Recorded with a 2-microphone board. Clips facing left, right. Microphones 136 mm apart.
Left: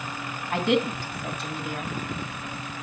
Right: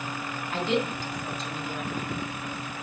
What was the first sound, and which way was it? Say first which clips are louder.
A woman speaking: left 4 dB; 65° left (ahead or behind).